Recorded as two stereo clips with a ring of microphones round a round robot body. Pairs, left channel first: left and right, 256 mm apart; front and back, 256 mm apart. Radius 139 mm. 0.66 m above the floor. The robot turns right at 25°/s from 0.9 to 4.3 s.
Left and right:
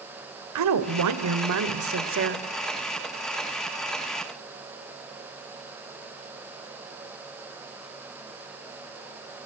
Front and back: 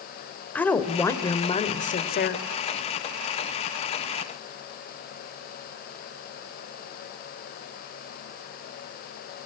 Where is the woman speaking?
85° right, 3 m; by 2.4 s 45° right, 3 m.